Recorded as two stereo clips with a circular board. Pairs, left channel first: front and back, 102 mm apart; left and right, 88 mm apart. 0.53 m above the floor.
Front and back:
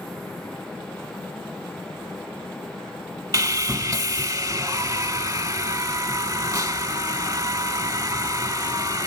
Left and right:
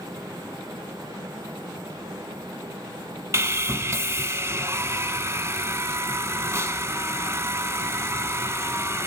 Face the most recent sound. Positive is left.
turn(degrees=-135)